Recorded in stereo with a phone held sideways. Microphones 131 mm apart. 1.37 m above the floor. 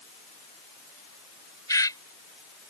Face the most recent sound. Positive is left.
turn(degrees=25)  # may be behind; listen again after turning